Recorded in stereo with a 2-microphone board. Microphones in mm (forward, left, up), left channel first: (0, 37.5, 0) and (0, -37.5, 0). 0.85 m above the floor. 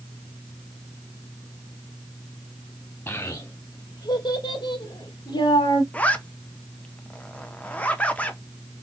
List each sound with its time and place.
3.1 s a child speaking: 30° left (ahead or behind), 0.7 m; by 5.8 s 75° left (ahead or behind), 1.6 m
5.9 s a zipper: 20° left (ahead or behind), 0.8 m